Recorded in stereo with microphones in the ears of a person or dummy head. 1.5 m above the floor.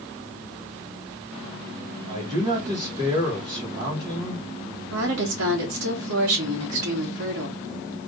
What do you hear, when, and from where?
2.1 s a man speaking: 35° right (ahead or behind), 2 m
4.9 s a woman speaking: 75° right (ahead or behind), 1.9 m